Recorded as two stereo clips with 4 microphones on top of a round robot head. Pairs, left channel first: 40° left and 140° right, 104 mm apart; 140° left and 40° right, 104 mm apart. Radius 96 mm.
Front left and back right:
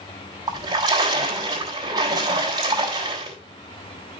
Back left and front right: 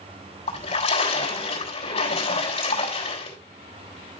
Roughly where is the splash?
Behind.